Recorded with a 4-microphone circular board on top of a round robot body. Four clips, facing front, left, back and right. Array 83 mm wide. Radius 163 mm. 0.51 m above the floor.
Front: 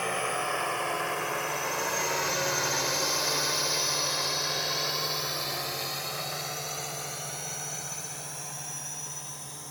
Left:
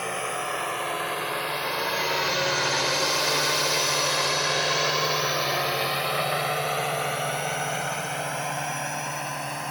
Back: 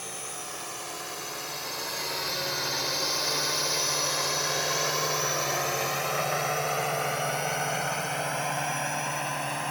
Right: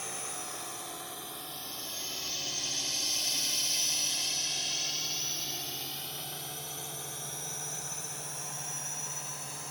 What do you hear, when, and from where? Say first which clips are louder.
0.0 s a drone: left 13 dB, front 10 dB; 45° left; by 9.7 s 140° left